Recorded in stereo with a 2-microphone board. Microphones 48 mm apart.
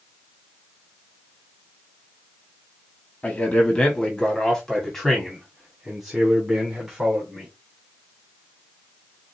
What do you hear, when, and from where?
3.2 s a man speaking: 35° left (ahead or behind), 1.6 m; by 7.5 s 10° right (ahead or behind), 3 m